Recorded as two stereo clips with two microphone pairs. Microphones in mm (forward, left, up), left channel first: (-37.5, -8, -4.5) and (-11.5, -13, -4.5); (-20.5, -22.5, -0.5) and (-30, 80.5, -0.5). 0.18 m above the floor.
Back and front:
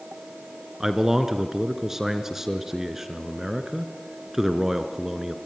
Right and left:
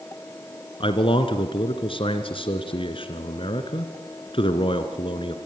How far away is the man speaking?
About 1.9 m.